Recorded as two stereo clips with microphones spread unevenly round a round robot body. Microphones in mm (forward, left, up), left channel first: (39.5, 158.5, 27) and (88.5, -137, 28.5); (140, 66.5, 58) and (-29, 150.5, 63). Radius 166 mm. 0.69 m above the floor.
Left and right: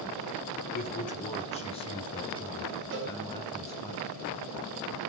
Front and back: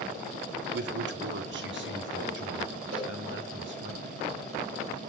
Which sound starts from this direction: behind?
A man speaking, at 0.7 s.